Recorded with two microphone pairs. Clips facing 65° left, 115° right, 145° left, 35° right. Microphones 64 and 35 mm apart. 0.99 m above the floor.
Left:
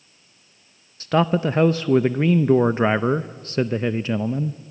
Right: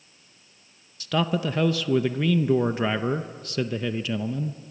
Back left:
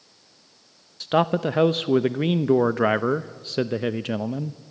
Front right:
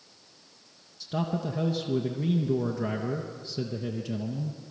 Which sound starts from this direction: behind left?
A man speaking, at 1.0 s.